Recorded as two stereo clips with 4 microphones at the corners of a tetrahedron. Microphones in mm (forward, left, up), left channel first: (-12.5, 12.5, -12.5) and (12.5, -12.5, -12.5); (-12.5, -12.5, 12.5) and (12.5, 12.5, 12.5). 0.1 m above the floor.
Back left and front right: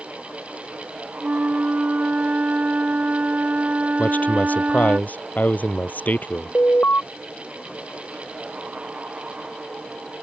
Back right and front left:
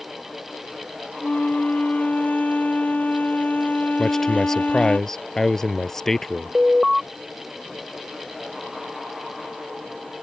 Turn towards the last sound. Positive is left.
turn(degrees=130)